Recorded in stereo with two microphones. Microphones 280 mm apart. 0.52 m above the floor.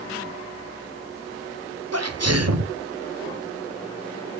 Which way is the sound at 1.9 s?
65° right (ahead or behind).